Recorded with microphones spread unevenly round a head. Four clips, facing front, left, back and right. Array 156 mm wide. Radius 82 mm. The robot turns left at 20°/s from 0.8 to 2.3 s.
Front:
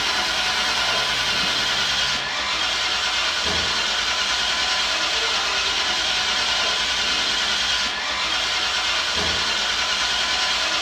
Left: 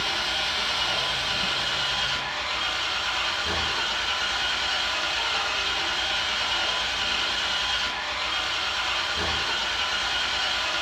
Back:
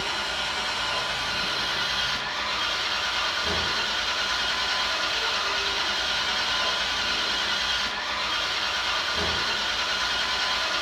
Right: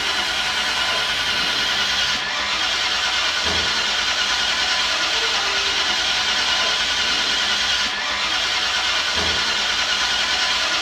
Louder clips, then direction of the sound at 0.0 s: Right 5 dB, front 5 dB; 50° right.